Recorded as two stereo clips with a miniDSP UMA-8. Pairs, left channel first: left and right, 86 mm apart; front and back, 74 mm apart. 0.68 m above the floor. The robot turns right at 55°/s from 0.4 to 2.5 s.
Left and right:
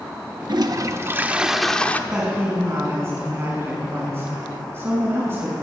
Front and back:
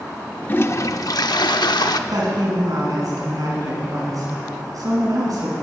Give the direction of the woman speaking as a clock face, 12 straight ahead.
6 o'clock.